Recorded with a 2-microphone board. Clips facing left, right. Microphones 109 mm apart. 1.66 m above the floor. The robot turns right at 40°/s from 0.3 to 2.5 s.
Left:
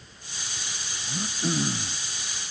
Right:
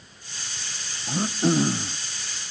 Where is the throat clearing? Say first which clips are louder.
Right 7 dB; 55° right; by 2.0 s 20° right.